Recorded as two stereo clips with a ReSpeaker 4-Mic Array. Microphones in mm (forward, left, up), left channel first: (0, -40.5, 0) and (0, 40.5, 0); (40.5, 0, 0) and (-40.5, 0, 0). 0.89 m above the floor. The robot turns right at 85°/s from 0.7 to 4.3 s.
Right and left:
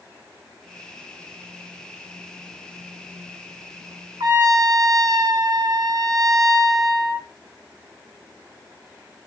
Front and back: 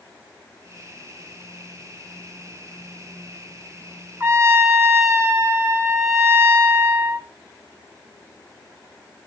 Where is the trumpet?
120° left, 2.5 m; by 7.3 s 125° left, 2.5 m.